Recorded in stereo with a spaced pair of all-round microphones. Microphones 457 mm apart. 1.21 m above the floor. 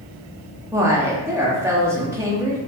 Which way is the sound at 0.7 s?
5° right (ahead or behind).